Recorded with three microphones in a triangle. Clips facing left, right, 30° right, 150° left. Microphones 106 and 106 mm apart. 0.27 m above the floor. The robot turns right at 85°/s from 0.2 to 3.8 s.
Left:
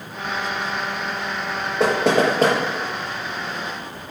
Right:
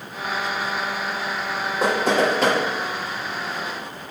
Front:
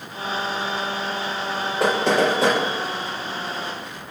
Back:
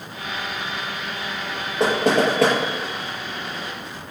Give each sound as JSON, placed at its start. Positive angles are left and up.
{"t": 1.8, "sound": "knocking", "azimuth_deg": 85, "distance_m": 4.5}